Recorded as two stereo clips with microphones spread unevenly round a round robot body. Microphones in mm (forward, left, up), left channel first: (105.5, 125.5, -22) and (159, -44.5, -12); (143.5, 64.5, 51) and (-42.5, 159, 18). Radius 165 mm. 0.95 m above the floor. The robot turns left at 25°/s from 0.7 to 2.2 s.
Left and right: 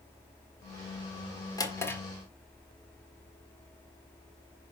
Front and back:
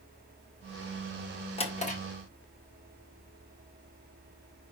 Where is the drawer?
35° left, 1.8 m; by 2.0 s 25° left, 1.8 m.